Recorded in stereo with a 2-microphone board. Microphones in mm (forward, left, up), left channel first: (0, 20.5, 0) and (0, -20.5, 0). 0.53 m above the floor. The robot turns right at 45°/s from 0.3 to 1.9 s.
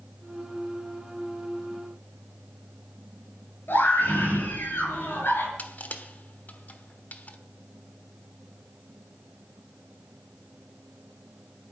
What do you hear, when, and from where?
3.7 s a scream: 65° left (ahead or behind), 9 m
5.6 s crushing: 45° left (ahead or behind), 1.2 m